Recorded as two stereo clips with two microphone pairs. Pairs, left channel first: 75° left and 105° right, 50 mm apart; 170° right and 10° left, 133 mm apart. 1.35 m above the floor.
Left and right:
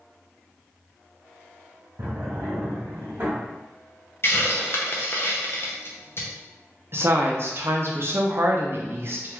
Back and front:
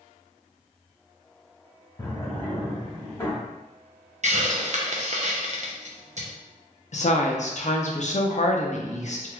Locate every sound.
2.0 s a drawer: 115° right, 1.3 m
4.2 s a hiss: 35° left, 0.6 m
6.9 s a woman speaking: 140° right, 0.6 m